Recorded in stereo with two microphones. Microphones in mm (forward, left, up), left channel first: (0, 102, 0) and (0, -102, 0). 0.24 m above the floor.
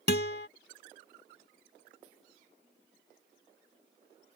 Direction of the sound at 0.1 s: 55° left (ahead or behind).